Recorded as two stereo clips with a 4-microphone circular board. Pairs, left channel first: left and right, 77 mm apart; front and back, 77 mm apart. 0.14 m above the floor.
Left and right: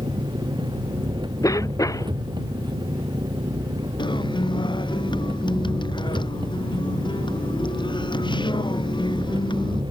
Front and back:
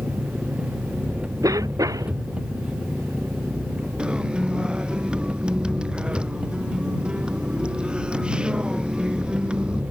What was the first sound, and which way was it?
An engine running, 105° right.